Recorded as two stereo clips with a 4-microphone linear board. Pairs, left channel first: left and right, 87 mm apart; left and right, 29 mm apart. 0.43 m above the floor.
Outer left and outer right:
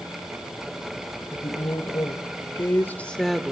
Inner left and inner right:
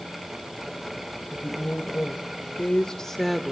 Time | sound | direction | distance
1.3 | a woman speaking | 55° left (ahead or behind) | 2 m